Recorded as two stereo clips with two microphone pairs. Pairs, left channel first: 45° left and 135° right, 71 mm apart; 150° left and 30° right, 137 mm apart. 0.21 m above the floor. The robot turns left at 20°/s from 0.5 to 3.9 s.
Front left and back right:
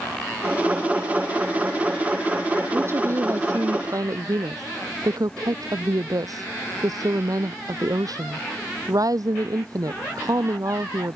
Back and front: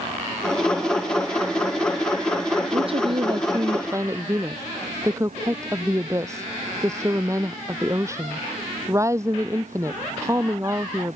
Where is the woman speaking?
75° right; by 11.2 s 100° right.